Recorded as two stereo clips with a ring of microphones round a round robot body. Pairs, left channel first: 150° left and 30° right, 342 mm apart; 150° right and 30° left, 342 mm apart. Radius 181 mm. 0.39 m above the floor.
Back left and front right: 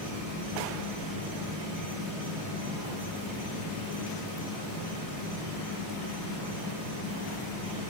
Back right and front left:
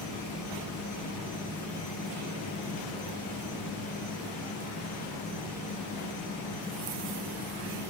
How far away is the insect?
About 9.5 m.